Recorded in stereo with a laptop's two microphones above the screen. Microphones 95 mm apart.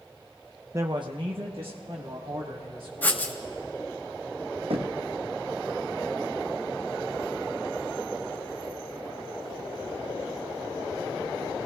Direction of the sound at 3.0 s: 20° left (ahead or behind).